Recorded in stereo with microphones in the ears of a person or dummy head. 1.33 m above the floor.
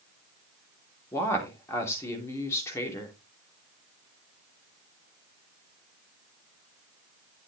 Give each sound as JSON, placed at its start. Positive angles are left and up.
{"t": 1.1, "sound": "a woman speaking", "side_deg": 20, "distance_m": 3.0}